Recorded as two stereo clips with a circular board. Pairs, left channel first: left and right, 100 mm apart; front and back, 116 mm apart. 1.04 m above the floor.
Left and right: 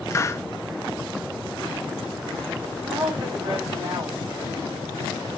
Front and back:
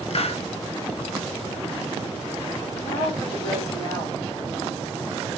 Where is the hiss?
25° left, 0.6 m.